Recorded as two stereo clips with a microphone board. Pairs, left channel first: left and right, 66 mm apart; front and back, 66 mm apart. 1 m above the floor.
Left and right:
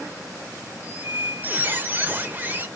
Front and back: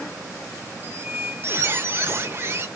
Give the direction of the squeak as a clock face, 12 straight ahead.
5 o'clock.